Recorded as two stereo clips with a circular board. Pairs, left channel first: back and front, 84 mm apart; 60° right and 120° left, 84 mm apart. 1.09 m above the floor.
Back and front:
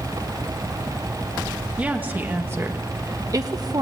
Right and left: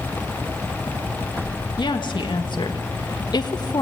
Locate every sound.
1.8 s a woman speaking: 70° right, 1.8 m; by 3.8 s 30° right, 1.5 m